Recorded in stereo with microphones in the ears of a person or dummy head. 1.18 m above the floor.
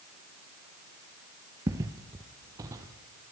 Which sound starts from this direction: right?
Footsteps, at 1.7 s.